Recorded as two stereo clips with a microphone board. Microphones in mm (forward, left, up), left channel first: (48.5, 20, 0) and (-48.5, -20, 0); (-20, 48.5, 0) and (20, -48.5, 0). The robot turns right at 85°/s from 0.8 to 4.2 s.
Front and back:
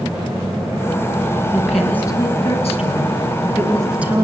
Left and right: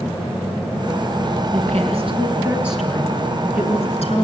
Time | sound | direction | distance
1.5 | a woman speaking | 85° right | 4.5 m